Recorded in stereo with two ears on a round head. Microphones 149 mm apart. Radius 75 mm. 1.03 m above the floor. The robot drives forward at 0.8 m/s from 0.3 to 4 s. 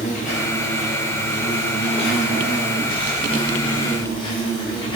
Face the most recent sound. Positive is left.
turn(degrees=35)  # may be behind; listen again after turning